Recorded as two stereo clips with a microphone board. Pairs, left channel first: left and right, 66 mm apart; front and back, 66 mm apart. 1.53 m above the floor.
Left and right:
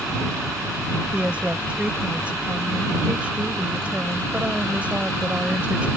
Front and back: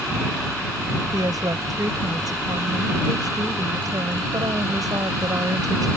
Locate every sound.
1.1 s a woman speaking: 160° right